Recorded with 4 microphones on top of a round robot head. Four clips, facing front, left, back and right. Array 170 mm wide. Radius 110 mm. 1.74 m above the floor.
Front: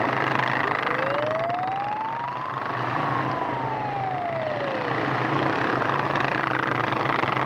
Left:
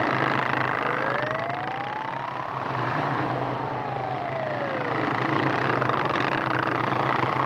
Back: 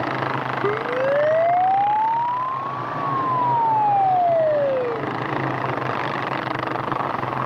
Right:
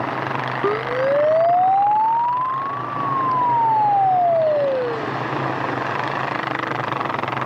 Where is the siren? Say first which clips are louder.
Right 6 dB, back 4 dB; 125° right; by 5.1 s 130° right.